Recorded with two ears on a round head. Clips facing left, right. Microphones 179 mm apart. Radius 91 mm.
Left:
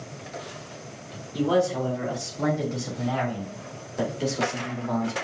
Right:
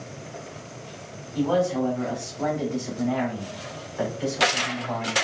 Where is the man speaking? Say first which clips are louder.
Even; 50° left (ahead or behind), 3 m; by 5.1 s 45° left (ahead or behind), 1.5 m.